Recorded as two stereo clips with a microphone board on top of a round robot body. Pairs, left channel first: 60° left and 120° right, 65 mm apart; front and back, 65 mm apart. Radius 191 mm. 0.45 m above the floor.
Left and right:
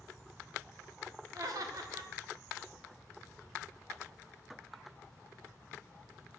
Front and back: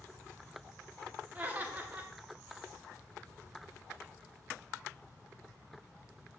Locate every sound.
1.4 s laughter: 115° right, 1.9 m